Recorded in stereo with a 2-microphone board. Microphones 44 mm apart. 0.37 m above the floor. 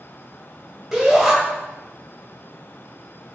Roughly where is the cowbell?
I don't hear a cowbell.